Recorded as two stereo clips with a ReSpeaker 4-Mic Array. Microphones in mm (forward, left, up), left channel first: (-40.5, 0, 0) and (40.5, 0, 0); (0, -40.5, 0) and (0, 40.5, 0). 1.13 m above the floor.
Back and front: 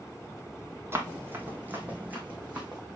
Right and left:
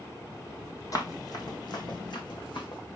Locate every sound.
0.9 s running footsteps: 55° right, 2.0 m; by 2.8 s 75° right, 3.5 m